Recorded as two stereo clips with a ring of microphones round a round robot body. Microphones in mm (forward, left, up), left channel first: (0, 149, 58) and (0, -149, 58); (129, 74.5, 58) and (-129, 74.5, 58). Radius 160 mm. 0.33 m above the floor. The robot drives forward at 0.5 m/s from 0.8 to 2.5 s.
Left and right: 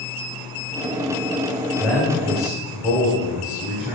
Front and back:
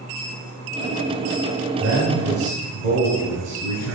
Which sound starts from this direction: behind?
A man speaking, at 1.8 s.